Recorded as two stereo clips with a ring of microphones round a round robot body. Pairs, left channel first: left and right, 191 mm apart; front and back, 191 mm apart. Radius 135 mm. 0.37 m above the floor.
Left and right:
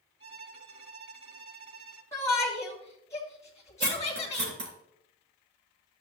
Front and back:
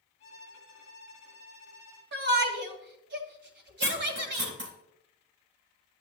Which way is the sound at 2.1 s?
170° left.